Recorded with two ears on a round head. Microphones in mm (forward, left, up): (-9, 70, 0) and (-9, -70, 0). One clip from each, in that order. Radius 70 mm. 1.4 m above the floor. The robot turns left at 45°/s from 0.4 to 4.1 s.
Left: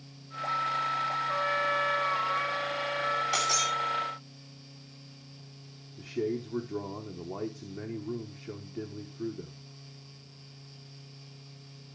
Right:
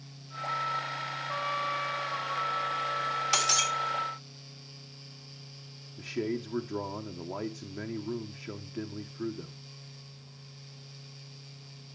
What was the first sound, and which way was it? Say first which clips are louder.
A trumpet: left 1 dB; 175° left.